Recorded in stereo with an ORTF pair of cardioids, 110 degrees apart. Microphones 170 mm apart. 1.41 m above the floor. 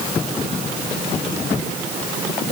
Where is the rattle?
No rattle in this recording.